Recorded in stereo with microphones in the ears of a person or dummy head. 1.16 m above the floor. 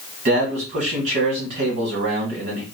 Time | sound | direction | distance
0.2 | a man speaking | 40° right (ahead or behind) | 1.7 m